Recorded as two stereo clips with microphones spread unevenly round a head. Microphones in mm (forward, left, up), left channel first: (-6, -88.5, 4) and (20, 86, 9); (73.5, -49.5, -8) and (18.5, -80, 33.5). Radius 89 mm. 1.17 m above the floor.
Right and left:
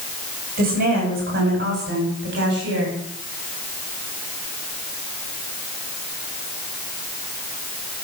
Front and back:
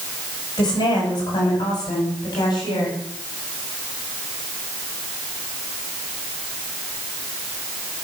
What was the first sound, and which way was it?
A woman speaking, 40° left.